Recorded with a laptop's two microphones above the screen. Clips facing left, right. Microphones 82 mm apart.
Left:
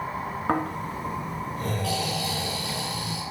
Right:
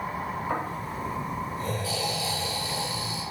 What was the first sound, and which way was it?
Snoring, 65° left (ahead or behind).